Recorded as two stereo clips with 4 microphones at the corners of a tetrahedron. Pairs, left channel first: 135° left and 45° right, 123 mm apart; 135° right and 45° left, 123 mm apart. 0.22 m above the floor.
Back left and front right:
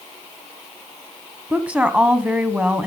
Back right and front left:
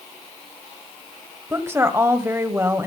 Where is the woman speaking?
20° left, 1.4 m.